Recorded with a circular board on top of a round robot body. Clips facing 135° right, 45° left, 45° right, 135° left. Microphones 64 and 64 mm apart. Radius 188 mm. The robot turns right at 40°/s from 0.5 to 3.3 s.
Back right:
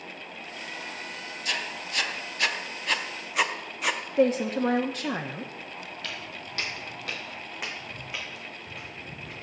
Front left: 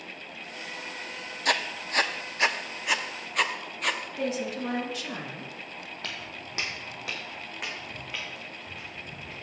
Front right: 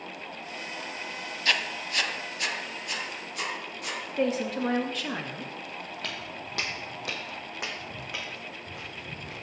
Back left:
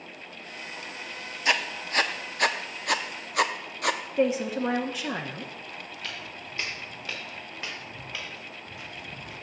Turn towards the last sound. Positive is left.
turn(degrees=-65)